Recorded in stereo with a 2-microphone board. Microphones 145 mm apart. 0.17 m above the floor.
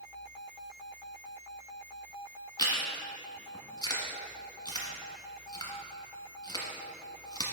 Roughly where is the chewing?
Left.